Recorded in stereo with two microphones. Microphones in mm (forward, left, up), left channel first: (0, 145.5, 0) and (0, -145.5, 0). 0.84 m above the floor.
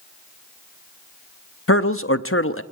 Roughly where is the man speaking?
Left.